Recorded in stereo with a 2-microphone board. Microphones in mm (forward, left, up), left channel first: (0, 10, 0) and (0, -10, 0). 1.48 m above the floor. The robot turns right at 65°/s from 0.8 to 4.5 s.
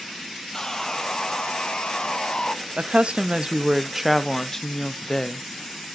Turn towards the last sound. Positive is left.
turn(degrees=15)